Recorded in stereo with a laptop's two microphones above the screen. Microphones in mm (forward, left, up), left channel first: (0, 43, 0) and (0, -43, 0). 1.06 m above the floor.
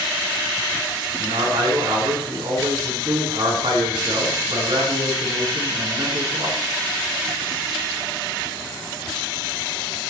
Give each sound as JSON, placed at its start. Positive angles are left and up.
{"t": 1.2, "sound": "a man speaking", "side_deg": -75, "distance_m": 9.0}